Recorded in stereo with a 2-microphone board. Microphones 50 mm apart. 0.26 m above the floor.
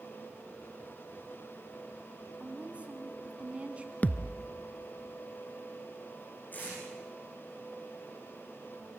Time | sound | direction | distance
2.4 | a woman speaking | 25° right (ahead or behind) | 2.5 m
4.0 | a thud | 30° left (ahead or behind) | 0.8 m
6.5 | tape being pulled | 35° left (ahead or behind) | 9.5 m